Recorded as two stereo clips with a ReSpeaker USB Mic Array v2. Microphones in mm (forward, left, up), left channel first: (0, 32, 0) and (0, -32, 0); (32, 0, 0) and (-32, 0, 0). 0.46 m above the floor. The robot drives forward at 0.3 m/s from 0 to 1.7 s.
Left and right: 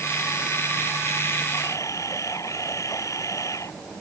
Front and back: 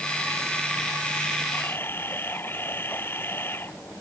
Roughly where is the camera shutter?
Ahead left.